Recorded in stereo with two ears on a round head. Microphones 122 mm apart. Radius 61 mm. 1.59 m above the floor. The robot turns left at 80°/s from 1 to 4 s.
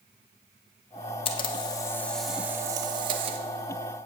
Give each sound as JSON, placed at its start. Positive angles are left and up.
{"t": 1.2, "sound": "a camera shutter", "azimuth_deg": 80, "distance_m": 0.9}